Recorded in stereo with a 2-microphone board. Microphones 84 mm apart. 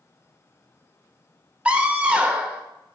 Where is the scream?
15° right (ahead or behind), 1.0 m.